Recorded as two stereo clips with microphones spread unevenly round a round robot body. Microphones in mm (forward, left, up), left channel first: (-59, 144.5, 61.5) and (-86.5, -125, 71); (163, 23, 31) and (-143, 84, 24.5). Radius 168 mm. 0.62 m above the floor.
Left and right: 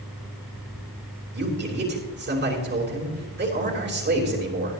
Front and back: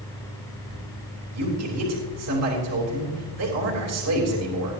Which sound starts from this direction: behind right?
A man speaking, at 1.3 s.